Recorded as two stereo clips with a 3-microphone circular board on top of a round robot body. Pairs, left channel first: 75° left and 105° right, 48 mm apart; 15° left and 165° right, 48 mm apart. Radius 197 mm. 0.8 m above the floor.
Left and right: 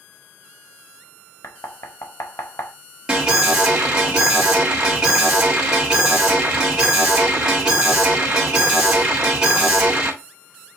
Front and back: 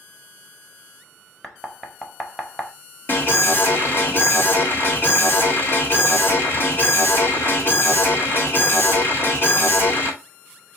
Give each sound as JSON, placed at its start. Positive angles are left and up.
{"t": 1.4, "sound": "knocking", "azimuth_deg": 100, "distance_m": 0.9}
{"t": 3.1, "sound": "an alarm", "azimuth_deg": -30, "distance_m": 2.0}